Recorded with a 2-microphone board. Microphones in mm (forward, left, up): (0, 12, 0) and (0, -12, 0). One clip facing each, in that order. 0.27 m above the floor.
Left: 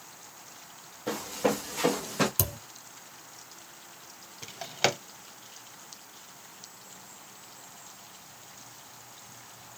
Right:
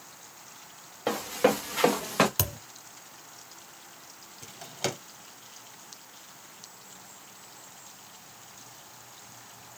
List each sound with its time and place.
1.1 s running footsteps: 70° right (ahead or behind), 2 m; by 2.3 s 85° right, 1.6 m
2.4 s a thud: 35° right (ahead or behind), 1.2 m
4.4 s a drawer: 35° left (ahead or behind), 0.5 m